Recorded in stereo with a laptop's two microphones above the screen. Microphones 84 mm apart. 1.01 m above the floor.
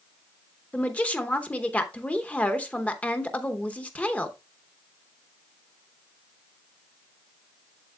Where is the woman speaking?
15° left (ahead or behind), 0.8 m.